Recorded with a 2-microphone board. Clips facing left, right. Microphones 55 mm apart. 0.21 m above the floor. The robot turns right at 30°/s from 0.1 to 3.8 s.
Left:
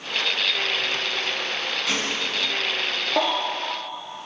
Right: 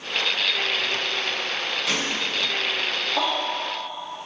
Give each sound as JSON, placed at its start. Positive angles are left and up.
{"t": 1.9, "sound": "a gunshot", "side_deg": 0, "distance_m": 1.6}
{"t": 3.2, "sound": "a baby crying", "side_deg": 50, "distance_m": 1.3}